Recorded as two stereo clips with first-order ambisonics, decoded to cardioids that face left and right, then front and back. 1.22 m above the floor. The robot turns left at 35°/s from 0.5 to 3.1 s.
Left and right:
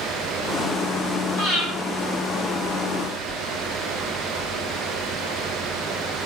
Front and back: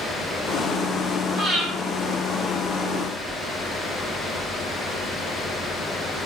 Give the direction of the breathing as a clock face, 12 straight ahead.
7 o'clock.